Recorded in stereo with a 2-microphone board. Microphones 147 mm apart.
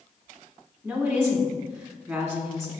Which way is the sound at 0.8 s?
15° right (ahead or behind).